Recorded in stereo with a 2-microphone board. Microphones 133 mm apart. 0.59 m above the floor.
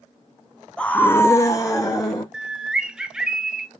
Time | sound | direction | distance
0.8 | a scream | 5° left (ahead or behind) | 0.5 m
2.3 | a bird | 5° right (ahead or behind) | 0.5 m